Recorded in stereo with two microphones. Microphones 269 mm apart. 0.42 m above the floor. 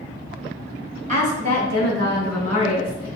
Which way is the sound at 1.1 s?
30° right (ahead or behind).